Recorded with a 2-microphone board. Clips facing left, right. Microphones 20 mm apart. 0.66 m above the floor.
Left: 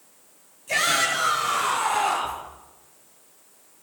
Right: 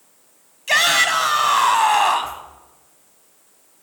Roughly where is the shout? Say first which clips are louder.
Right 6 dB; right.